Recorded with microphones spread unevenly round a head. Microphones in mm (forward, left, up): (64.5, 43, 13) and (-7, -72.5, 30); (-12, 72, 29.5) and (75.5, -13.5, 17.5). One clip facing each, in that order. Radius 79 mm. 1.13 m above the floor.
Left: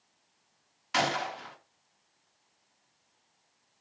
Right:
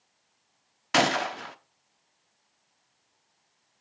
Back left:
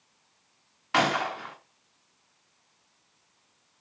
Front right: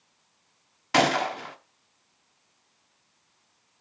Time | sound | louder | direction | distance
0.9 | a gunshot | right 5 dB, front right 3 dB | 105° right | 1.1 m